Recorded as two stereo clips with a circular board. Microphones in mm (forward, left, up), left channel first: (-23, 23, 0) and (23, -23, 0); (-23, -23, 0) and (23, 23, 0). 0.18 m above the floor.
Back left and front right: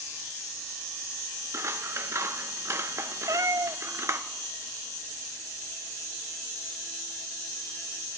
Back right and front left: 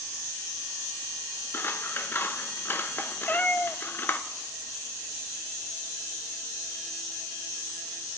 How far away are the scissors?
About 0.7 m.